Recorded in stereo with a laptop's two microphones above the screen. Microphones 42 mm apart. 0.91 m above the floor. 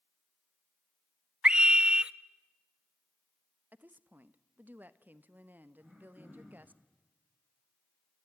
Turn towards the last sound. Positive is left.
turn(degrees=-5)  # may be behind; listen again after turning